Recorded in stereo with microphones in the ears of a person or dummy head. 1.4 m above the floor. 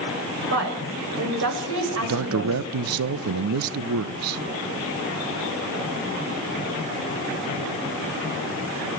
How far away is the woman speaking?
About 7.5 m.